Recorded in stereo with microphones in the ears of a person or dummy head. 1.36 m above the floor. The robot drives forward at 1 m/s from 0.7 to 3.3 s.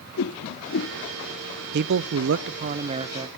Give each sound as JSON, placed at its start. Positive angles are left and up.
{"t": 0.2, "sound": "a whoosh", "side_deg": 65, "distance_m": 0.7}
{"t": 1.7, "sound": "a man speaking", "side_deg": -55, "distance_m": 0.7}